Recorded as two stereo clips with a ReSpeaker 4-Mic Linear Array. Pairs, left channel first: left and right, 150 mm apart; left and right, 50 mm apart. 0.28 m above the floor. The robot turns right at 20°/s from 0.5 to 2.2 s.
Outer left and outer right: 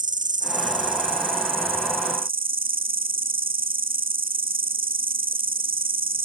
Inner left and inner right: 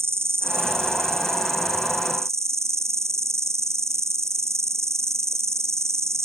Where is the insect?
120° right; by 6.2 s 85° right.